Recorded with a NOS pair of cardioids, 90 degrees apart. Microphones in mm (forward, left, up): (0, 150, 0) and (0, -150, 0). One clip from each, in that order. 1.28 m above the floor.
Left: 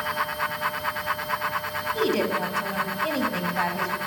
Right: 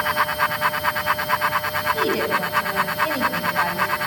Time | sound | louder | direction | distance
0.0 | a fan | right 6 dB | 35° right | 0.8 m
1.9 | a woman speaking | right 3 dB | 10° right | 7 m